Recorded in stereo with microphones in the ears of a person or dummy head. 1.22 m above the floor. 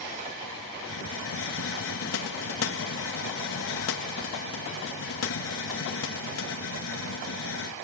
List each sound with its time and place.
0.8 s a hiss: 70° left (ahead or behind)